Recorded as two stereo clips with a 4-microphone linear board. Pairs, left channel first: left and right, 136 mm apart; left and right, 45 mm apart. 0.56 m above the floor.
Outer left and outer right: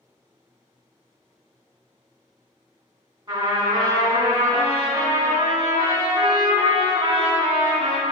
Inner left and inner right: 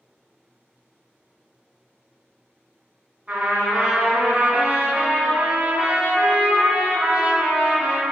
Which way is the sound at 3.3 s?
35° right (ahead or behind).